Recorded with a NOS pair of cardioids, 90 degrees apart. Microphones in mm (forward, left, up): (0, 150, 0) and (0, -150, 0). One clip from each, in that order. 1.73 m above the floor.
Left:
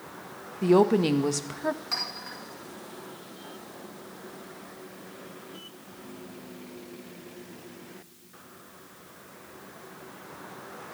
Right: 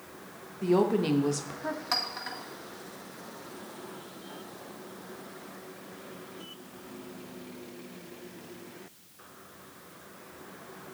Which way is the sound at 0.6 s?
25° left.